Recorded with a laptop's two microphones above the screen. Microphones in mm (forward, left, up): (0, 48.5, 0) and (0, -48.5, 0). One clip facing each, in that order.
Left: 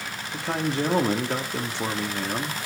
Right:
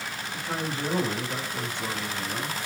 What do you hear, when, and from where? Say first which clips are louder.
0.3 s a man speaking: left 6 dB; 75° left (ahead or behind), 1.6 m